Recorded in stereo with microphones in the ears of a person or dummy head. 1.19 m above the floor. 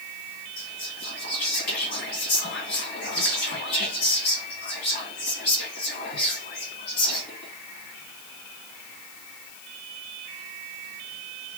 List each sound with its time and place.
0.6 s whispering: 60° left (ahead or behind), 1.9 m